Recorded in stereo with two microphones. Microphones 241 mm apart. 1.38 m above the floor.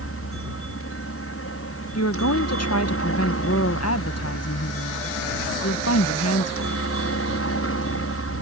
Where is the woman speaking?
85° left.